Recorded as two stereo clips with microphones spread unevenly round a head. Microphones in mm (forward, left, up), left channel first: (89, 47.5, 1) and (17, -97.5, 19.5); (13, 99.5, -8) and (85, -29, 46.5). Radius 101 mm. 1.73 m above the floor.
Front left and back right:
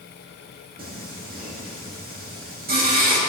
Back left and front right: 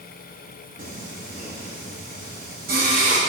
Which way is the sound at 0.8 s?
95° right.